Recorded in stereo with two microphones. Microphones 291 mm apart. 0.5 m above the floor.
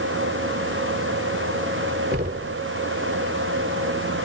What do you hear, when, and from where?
2.1 s knocking: 35° right (ahead or behind)